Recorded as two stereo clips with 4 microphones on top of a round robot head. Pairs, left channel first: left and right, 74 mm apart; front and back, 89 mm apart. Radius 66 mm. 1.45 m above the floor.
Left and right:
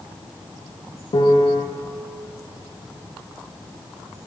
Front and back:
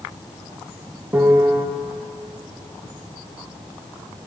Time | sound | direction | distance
1.1 | a piano | 110° left | 0.8 m